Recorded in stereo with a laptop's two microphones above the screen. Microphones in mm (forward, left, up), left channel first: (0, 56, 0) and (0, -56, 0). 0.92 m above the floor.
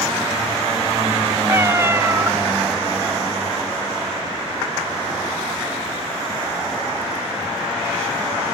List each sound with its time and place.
1.5 s a cat meowing: 20° right (ahead or behind)